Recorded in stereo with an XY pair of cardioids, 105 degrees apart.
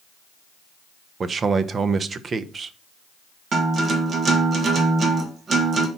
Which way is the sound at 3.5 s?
45° right.